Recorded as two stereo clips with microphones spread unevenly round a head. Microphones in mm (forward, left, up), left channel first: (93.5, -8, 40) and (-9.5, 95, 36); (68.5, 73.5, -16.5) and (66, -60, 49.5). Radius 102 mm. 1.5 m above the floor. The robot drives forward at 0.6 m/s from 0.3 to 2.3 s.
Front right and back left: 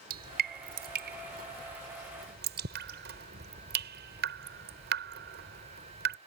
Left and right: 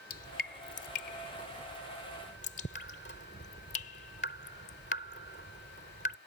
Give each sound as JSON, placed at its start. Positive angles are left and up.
{"t": 0.1, "sound": "dripping", "azimuth_deg": 130}